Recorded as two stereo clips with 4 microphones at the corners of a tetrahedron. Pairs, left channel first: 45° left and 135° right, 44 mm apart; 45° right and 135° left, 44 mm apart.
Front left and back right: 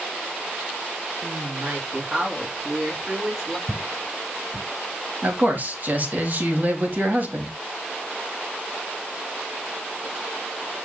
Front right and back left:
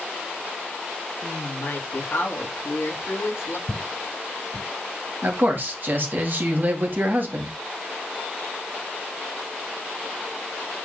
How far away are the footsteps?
About 3.5 m.